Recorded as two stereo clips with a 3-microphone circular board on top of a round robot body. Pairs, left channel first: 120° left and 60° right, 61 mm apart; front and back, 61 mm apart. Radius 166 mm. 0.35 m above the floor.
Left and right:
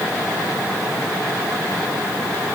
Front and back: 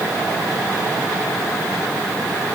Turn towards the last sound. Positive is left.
No sound to turn to.